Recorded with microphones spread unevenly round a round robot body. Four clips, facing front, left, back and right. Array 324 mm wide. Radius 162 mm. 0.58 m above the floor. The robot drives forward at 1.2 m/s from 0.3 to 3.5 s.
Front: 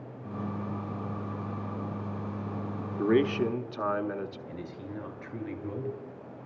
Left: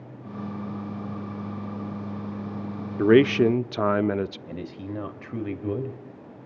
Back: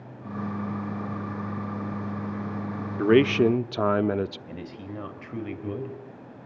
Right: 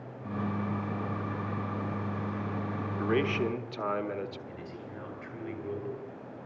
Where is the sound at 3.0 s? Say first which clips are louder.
Left 12 dB, back 6 dB; 95° left, 0.9 m; by 4.4 s 135° left, 1.1 m.